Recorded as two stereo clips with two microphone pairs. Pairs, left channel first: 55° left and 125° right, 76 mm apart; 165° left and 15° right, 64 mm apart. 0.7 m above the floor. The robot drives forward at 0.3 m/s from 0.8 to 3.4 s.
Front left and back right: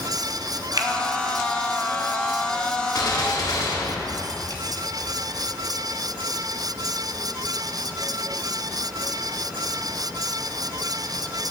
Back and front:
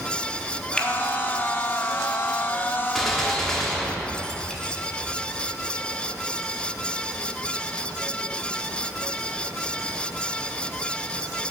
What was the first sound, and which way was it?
A finger snap, 120° right.